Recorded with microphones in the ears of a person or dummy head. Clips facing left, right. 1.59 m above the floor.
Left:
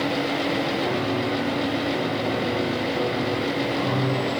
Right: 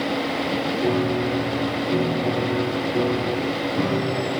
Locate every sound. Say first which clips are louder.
0.8 s a piano: right 3 dB; 30° right (ahead or behind), 6.5 m